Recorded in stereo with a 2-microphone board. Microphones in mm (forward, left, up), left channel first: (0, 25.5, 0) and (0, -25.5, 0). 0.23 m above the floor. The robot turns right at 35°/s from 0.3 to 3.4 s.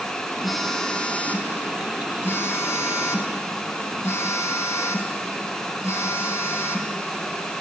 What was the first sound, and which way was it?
A phone buzzing, straight ahead.